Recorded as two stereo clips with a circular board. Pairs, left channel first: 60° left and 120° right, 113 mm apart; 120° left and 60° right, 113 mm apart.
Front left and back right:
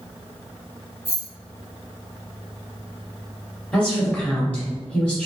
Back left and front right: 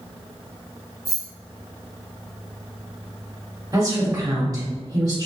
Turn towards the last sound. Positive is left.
turn(degrees=-15)